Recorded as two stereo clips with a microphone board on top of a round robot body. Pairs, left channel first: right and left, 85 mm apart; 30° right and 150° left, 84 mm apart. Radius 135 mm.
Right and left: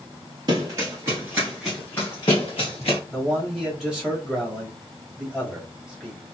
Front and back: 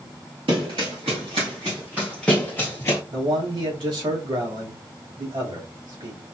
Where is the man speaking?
175° left, 2.5 m.